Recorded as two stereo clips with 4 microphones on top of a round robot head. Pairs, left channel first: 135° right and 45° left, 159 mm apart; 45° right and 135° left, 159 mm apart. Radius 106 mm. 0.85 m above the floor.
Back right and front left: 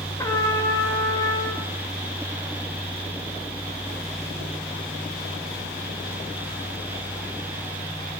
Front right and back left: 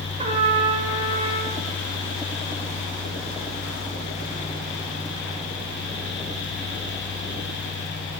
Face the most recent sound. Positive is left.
turn(degrees=160)